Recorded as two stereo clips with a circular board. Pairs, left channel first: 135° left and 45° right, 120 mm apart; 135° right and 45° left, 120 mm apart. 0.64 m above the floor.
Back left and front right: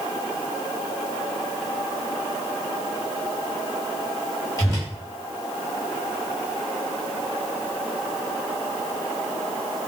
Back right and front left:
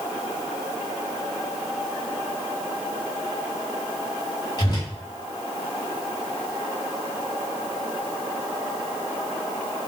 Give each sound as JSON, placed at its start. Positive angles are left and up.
{"t": 4.6, "sound": "a whoosh", "azimuth_deg": -170, "distance_m": 1.7}